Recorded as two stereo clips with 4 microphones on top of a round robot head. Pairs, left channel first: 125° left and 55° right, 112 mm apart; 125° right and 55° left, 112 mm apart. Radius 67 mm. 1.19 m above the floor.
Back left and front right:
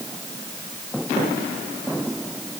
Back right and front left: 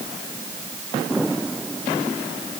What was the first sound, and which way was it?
Only background noise.